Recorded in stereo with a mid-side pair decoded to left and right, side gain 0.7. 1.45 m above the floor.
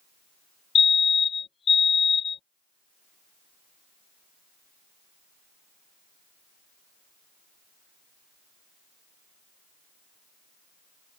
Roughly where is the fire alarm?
Ahead left.